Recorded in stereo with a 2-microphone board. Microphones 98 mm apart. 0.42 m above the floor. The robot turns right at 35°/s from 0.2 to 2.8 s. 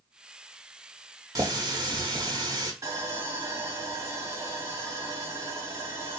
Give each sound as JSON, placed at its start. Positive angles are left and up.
{"t": 1.4, "sound": "a running tap", "azimuth_deg": -120, "distance_m": 0.8}
{"t": 2.8, "sound": "sawing", "side_deg": -35, "distance_m": 1.2}